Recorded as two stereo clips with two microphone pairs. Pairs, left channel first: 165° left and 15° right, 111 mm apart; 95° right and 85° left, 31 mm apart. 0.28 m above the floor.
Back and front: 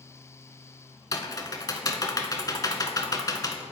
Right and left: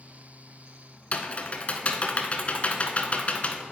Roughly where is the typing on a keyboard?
Behind right.